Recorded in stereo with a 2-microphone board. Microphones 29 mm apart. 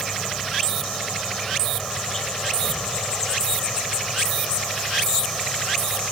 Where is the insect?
10° left (ahead or behind).